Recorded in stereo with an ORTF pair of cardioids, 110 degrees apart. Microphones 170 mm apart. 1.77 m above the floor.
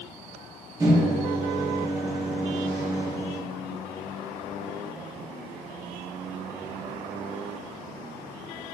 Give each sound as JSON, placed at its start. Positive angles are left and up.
{"t": 0.8, "sound": "a microwave", "azimuth_deg": -20, "distance_m": 1.7}